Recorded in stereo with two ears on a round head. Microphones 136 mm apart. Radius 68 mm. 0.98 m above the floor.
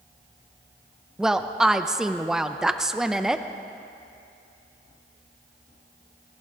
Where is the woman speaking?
5° right (ahead or behind), 0.5 m.